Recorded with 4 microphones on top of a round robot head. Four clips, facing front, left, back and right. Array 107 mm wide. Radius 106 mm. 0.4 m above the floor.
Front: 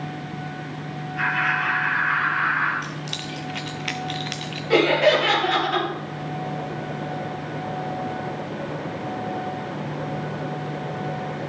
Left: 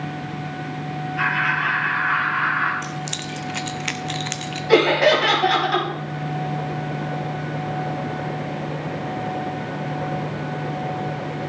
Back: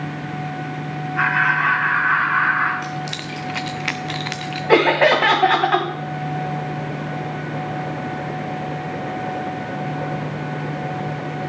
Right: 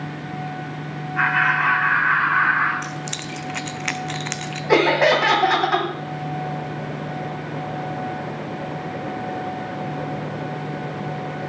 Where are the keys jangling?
155° right, 0.6 m.